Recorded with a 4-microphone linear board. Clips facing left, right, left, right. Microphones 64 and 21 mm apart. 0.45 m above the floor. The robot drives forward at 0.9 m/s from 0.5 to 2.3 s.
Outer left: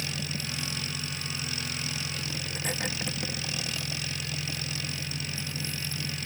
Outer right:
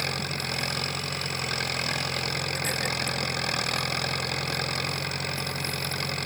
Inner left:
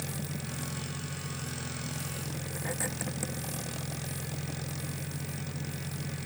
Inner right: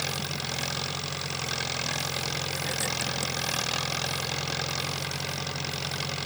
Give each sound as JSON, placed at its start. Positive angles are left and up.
{"t": 0.0, "sound": "an engine running", "side_deg": -50}